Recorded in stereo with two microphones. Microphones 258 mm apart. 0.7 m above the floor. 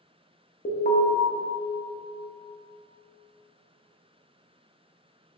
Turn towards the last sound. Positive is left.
turn(degrees=35)  # may be behind; listen again after turning